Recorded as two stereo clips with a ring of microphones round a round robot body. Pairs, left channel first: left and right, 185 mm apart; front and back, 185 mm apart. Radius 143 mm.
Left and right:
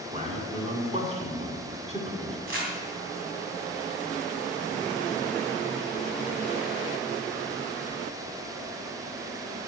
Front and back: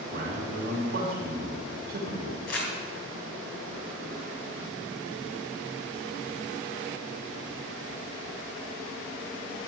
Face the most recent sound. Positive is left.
turn(degrees=-45)